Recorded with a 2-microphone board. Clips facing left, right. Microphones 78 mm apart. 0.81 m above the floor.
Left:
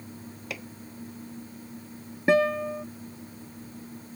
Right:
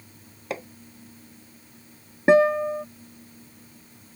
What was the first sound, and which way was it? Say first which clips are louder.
Hammering: right 7 dB; 35° right (ahead or behind).